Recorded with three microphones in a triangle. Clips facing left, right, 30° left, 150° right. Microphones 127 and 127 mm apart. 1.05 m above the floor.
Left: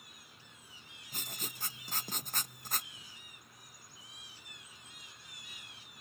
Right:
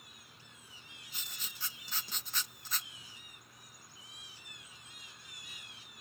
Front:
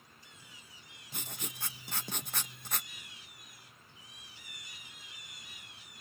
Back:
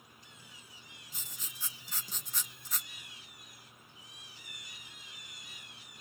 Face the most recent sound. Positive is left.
turn(degrees=50)